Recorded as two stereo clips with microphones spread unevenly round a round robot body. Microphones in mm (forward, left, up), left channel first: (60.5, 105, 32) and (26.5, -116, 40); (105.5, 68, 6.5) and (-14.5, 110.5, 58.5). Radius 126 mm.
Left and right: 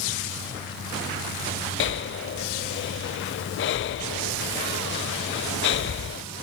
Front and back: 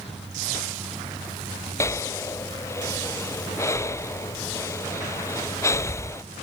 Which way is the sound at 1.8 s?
45° left.